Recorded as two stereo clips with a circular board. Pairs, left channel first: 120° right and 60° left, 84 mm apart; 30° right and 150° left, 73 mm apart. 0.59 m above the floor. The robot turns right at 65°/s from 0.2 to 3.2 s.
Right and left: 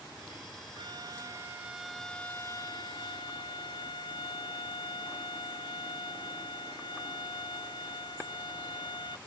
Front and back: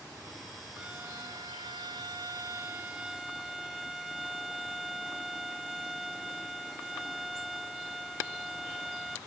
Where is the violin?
75° left, 0.5 m; by 9.2 s 125° right, 0.5 m.